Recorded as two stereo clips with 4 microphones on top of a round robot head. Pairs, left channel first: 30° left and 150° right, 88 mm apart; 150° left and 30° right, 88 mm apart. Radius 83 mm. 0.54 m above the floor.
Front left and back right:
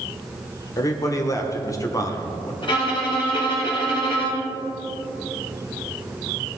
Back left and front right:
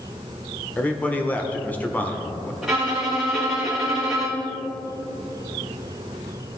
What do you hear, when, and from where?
0.8 s a man speaking: 80° left, 1.5 m
2.6 s a violin: 55° left, 4.5 m